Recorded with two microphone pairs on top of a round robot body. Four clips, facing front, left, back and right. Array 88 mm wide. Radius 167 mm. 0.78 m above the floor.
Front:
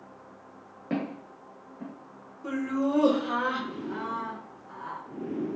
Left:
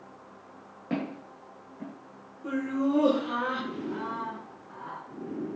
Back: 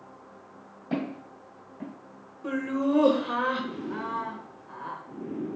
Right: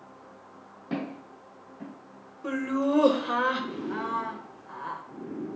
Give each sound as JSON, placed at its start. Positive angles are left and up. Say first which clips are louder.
{"t": 0.9, "sound": "footsteps", "louder": "left 1 dB, even", "azimuth_deg": 30, "distance_m": 0.9}
{"t": 2.4, "sound": "laughter", "louder": "right 1 dB, back 1 dB", "azimuth_deg": -110, "distance_m": 0.7}